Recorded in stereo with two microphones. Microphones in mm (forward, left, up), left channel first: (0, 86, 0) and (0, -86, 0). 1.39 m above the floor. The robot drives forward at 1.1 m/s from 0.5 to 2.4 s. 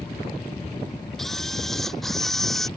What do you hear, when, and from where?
1.2 s a camera shutter: centre (ahead or behind)